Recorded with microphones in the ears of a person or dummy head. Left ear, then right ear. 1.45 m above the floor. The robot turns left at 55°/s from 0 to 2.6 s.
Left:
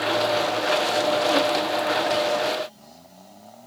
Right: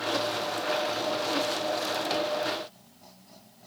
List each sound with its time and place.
Only background noise.